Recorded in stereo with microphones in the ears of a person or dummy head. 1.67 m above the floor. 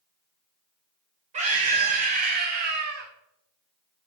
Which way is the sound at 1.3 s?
35° right (ahead or behind).